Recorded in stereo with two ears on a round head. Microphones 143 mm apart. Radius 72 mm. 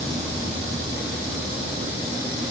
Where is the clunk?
I don't hear a clunk.